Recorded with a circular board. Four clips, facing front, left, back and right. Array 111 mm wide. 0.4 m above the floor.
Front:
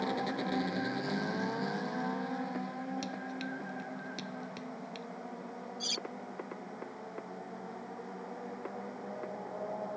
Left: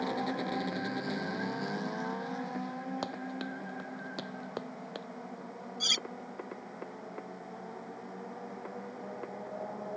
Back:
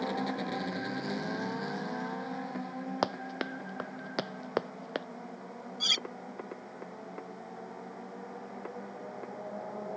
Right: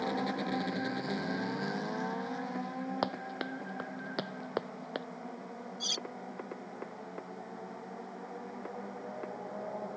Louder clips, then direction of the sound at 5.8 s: Left 2 dB, back 2 dB; 145° left.